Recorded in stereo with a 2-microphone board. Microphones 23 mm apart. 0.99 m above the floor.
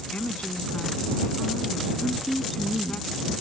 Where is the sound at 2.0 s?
5° right (ahead or behind).